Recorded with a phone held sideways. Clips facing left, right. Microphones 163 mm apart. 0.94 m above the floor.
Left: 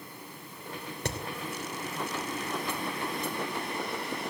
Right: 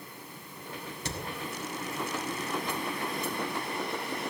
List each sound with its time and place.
1.1 s hammering: 60° left (ahead or behind), 2.5 m